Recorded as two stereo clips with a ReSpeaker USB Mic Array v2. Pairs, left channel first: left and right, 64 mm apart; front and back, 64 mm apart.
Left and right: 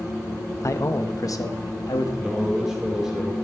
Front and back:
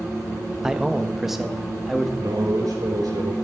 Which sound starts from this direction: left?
A man speaking, at 0.6 s.